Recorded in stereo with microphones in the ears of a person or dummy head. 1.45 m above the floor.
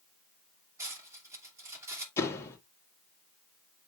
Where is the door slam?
15° left (ahead or behind), 2.5 m.